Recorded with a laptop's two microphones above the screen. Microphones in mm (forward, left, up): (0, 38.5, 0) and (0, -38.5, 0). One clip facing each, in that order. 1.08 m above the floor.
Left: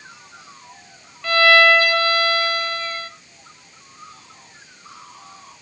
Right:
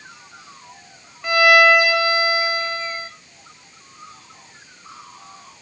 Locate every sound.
1.2 s a violin: 15° right (ahead or behind), 1.4 m